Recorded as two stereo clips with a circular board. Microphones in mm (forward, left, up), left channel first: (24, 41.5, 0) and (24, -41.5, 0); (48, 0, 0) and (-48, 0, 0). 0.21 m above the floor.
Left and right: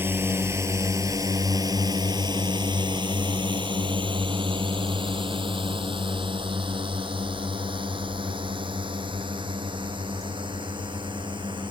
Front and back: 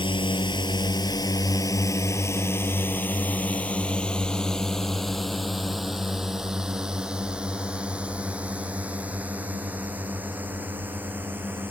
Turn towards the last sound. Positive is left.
turn(degrees=-110)